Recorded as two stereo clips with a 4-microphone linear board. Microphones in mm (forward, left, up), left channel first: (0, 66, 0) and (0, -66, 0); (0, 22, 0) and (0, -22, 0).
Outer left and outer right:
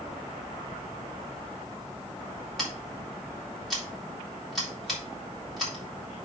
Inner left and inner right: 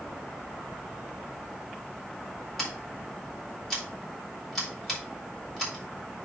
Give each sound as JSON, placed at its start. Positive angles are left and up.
{"t": 2.6, "sound": "scissors", "side_deg": 0, "distance_m": 4.0}